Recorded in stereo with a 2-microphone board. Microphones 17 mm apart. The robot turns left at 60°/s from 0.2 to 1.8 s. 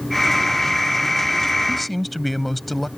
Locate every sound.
1.7 s a man speaking: centre (ahead or behind); by 2.9 s 5° left (ahead or behind)